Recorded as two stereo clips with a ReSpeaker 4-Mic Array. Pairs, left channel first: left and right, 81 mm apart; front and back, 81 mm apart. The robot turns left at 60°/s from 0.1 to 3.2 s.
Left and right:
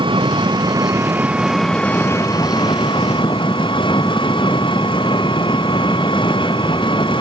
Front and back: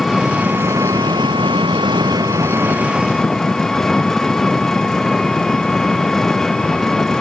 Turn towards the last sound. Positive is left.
turn(degrees=85)